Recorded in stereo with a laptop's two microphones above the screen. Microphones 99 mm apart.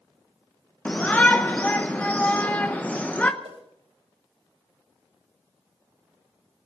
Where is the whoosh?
85° right, 3.5 m.